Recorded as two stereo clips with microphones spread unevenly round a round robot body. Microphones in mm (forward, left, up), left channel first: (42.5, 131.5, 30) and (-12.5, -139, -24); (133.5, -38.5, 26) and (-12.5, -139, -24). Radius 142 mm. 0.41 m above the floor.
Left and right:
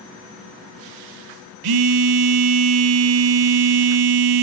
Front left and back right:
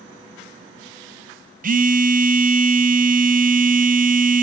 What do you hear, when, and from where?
1.6 s a phone buzzing: 95° right, 0.6 m